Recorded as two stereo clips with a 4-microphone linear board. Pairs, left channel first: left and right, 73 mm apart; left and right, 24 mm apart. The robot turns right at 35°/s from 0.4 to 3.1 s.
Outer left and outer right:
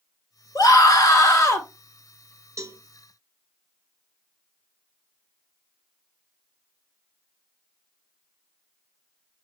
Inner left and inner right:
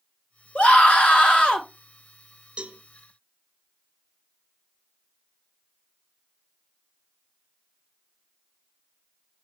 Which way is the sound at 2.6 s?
45° right (ahead or behind).